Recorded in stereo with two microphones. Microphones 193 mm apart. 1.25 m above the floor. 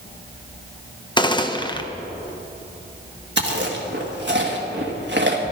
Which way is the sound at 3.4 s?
65° right (ahead or behind).